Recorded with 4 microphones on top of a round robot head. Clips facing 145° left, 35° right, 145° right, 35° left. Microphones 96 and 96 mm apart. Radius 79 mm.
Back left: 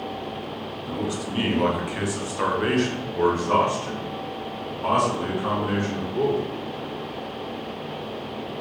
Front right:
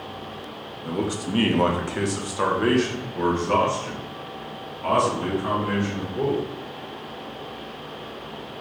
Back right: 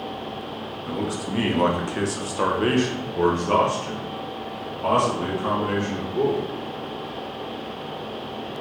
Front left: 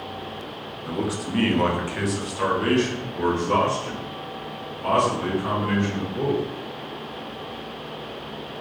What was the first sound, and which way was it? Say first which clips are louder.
A man speaking: front right 3 dB, front left 1 dB; 45° right.